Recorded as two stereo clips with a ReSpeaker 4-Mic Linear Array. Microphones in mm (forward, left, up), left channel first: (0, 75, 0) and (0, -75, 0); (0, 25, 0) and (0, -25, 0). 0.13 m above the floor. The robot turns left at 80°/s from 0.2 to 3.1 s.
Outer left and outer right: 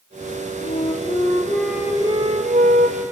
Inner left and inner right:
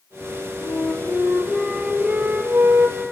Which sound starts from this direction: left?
A flute, at 0.6 s.